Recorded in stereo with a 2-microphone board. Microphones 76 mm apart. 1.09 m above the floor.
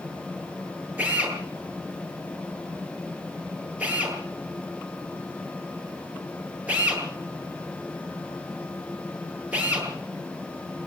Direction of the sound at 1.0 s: 20° right (ahead or behind).